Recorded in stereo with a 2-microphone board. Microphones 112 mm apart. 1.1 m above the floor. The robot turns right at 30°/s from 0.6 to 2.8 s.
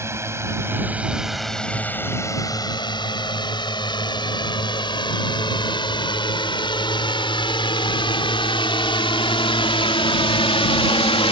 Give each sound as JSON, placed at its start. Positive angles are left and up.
{"t": 0.0, "sound": "a drone", "side_deg": -25}